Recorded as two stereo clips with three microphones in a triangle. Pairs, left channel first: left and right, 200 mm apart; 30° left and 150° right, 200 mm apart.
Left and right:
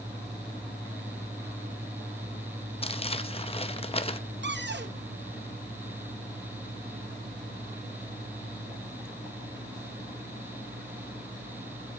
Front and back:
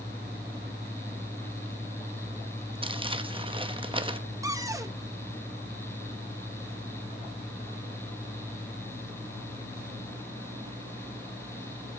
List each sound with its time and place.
2.8 s crumpling: 150° left, 0.7 m
4.4 s a cupboard door: 75° right, 0.9 m